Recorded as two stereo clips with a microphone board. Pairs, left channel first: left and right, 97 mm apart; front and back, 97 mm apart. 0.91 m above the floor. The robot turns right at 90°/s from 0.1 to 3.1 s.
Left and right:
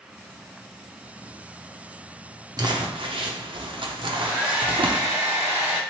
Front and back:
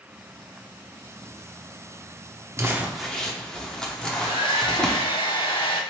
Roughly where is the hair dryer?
Ahead.